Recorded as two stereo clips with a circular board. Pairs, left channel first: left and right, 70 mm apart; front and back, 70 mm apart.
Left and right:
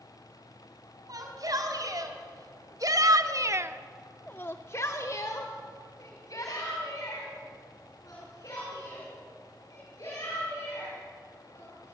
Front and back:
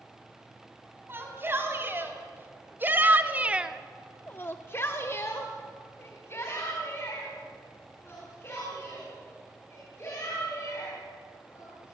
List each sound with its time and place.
1.1 s a shout: 125° right, 4 m; by 11.9 s 55° left, 11 m